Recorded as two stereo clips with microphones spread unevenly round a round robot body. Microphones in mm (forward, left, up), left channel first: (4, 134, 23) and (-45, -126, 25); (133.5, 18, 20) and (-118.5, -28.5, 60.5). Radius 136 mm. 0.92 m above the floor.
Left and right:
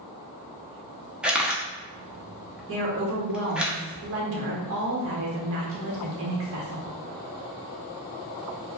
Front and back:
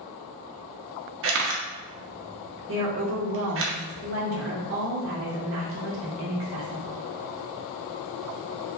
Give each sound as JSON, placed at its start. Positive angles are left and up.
{"t": 1.2, "sound": "a camera shutter", "azimuth_deg": 175, "distance_m": 0.6}
{"t": 2.7, "sound": "a woman speaking", "azimuth_deg": -130, "distance_m": 1.2}